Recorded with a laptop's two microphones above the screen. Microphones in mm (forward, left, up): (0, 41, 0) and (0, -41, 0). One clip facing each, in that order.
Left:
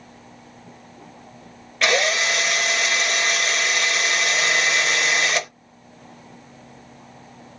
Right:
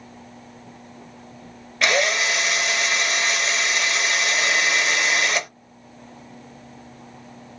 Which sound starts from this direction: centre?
A drill, at 1.8 s.